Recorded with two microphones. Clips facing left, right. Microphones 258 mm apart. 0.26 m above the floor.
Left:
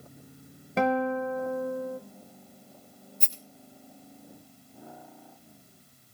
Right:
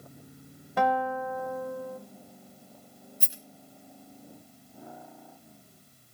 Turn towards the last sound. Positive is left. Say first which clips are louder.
# even
turn(degrees=-10)  # may be behind; listen again after turning